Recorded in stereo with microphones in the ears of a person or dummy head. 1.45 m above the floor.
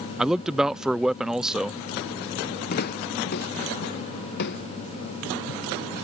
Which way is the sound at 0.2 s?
Centre (ahead or behind).